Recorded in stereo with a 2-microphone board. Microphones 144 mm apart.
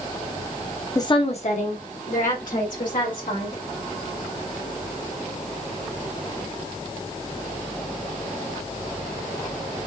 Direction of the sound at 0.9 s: 25° left (ahead or behind).